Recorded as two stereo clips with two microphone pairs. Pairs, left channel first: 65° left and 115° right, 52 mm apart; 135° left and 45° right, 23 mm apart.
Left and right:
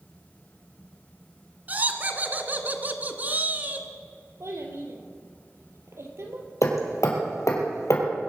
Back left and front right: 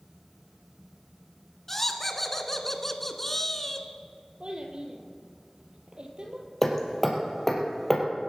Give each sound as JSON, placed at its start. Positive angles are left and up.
{"t": 1.7, "sound": "laughter", "azimuth_deg": -155, "distance_m": 1.5}
{"t": 4.4, "sound": "a child speaking", "azimuth_deg": -90, "distance_m": 3.0}
{"t": 6.6, "sound": "hammering", "azimuth_deg": 55, "distance_m": 3.0}